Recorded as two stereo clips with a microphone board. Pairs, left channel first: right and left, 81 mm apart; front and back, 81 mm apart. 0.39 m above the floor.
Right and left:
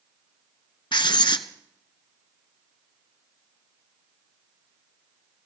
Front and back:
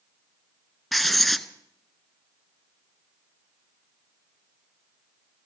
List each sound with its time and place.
0.9 s writing: 90° right, 0.7 m